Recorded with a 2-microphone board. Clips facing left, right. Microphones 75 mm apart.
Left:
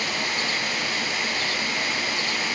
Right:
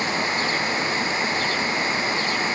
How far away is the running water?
About 0.7 m.